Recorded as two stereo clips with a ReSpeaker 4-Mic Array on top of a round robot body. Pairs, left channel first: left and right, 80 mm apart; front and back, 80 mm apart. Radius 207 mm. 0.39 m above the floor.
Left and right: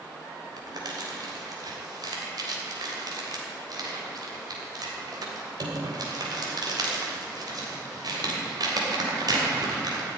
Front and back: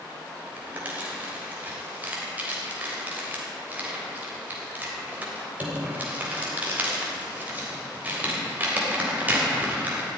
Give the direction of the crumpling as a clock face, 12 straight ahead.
4 o'clock.